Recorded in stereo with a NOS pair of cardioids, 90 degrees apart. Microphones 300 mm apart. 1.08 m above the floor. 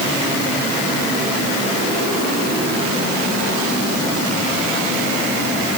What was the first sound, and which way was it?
Only background noise.